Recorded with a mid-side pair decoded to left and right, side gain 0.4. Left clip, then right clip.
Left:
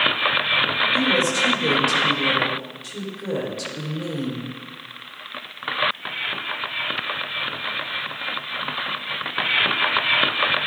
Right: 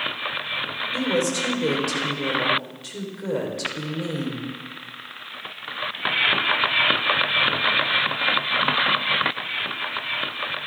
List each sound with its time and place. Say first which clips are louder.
0.9 s a woman speaking: left 4 dB; 20° right, 4.5 m